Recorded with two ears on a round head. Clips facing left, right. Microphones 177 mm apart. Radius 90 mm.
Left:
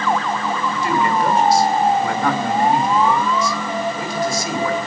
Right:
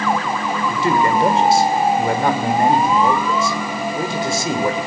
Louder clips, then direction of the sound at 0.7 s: Right 3 dB; 25° right (ahead or behind).